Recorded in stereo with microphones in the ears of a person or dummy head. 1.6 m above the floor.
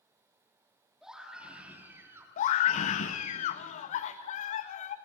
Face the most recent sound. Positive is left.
turn(degrees=45)  # may be behind; listen again after turning